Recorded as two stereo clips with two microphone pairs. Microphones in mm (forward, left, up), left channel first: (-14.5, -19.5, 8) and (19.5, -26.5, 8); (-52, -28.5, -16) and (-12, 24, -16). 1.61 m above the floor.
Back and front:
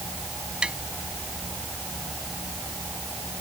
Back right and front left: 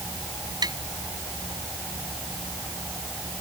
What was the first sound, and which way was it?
Tapping, 55° left.